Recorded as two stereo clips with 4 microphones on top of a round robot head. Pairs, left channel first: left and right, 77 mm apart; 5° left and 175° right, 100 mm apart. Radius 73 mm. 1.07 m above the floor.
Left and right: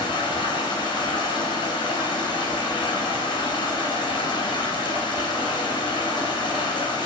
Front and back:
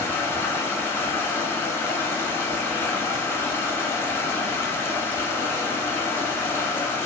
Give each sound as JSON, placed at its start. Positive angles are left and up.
{"t": 0.0, "sound": "running water", "azimuth_deg": 75, "distance_m": 0.9}